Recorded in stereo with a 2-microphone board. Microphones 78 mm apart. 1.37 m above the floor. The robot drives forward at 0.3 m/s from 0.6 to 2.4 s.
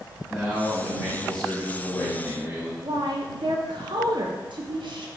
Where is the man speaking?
5° left (ahead or behind), 1.6 m.